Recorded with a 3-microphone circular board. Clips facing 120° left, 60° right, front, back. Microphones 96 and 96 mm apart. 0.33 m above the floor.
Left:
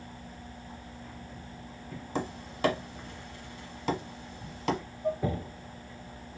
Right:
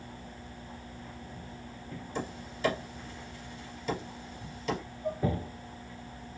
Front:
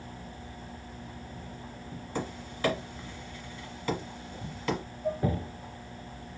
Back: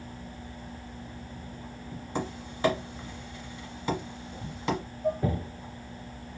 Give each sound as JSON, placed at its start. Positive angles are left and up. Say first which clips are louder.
{"t": 2.1, "sound": "tapping", "louder": "left 5 dB, back 2 dB", "azimuth_deg": 115, "distance_m": 1.0}
{"t": 5.0, "sound": "dishes clattering", "louder": "left 4 dB, back 3 dB", "azimuth_deg": 170, "distance_m": 1.3}